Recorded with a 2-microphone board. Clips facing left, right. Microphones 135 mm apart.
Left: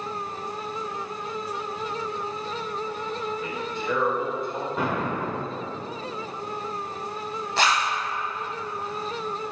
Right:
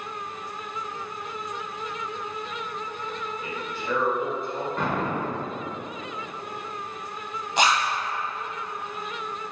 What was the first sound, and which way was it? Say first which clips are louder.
A man speaking: left 3 dB; 30° right (ahead or behind).